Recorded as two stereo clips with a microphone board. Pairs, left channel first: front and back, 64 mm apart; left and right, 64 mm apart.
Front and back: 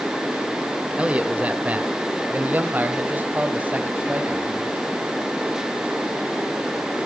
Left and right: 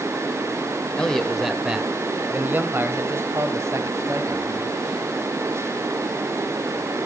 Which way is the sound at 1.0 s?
145° left.